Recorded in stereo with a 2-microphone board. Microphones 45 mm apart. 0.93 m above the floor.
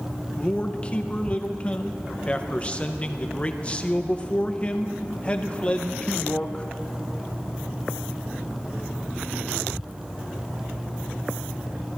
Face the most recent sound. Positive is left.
turn(degrees=25)  # may be behind; listen again after turning